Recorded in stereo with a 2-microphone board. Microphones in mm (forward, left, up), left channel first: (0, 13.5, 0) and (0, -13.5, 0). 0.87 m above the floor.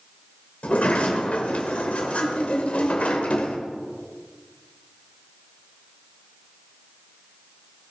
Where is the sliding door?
55° left (ahead or behind), 1.7 m.